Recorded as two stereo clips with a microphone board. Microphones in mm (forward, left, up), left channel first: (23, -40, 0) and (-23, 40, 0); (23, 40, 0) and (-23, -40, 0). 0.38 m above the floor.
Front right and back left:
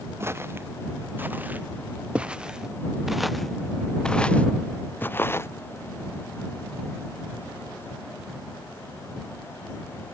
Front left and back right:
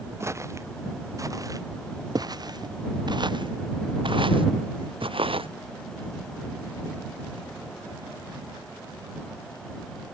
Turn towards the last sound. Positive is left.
turn(degrees=-120)